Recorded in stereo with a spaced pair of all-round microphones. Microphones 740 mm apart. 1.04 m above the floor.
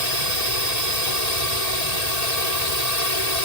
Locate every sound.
0.0 s a drone: 60° left (ahead or behind)